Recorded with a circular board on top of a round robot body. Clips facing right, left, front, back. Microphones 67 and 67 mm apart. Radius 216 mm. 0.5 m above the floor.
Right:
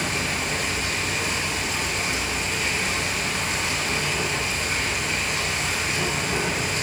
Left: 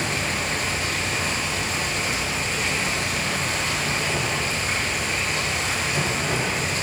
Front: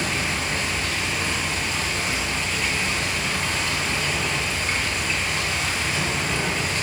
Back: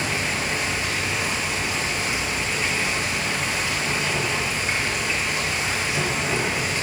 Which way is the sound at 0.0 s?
110° left.